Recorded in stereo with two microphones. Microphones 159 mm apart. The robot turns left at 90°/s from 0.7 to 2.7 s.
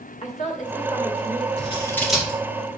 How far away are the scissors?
About 4.5 m.